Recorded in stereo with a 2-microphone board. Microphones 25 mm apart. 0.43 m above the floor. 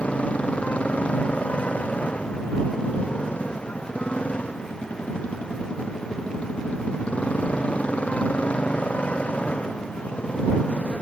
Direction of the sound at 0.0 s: 60° left (ahead or behind).